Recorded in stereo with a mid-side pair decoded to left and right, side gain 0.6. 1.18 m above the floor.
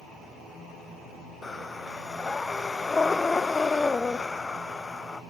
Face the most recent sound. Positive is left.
turn(degrees=20)